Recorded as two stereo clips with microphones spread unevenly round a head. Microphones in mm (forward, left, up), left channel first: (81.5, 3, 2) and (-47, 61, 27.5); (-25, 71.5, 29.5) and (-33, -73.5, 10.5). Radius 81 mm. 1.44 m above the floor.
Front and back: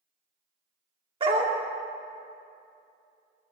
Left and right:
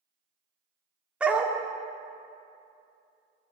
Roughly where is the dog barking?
Behind.